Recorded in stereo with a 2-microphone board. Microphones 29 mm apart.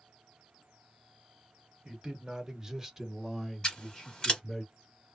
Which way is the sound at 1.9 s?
25° right (ahead or behind).